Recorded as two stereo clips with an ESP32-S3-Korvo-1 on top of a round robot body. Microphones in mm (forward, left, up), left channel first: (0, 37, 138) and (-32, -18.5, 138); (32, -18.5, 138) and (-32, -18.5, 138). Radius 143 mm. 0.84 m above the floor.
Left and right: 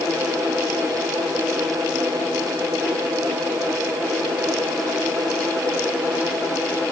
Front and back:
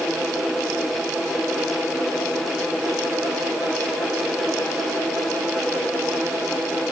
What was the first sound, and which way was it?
Only background noise.